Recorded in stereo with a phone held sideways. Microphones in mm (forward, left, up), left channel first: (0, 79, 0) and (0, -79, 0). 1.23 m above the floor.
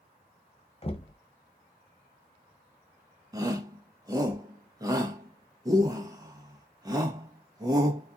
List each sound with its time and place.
0.8 s knocking: 35° left (ahead or behind), 0.6 m
3.3 s a shout: 20° right (ahead or behind), 1.2 m